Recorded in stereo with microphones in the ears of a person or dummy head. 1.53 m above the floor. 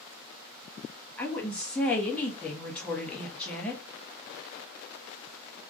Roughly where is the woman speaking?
Centre.